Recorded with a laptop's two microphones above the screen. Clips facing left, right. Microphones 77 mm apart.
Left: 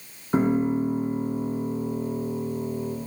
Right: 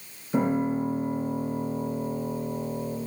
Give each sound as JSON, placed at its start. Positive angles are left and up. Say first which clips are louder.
{"t": 0.3, "sound": "a piano", "louder": "left 3 dB", "side_deg": 60, "distance_m": 2.5}